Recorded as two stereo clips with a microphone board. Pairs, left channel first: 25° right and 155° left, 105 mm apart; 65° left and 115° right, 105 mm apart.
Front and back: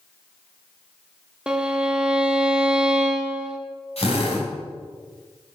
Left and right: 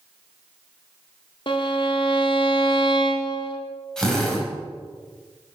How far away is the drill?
About 4.5 m.